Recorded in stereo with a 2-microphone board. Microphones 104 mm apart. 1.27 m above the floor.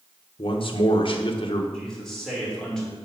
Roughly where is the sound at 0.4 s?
Left.